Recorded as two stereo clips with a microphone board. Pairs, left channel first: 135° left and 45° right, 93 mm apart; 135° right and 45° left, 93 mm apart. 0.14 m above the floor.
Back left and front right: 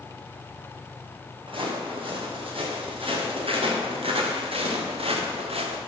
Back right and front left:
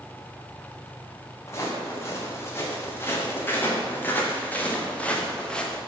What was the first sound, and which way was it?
Footsteps, 75° right.